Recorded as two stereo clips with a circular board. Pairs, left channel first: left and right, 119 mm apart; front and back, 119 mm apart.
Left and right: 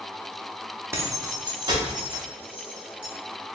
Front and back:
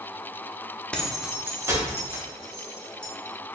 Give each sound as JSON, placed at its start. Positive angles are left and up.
{"t": 0.9, "sound": "keys jangling", "azimuth_deg": -65, "distance_m": 0.6}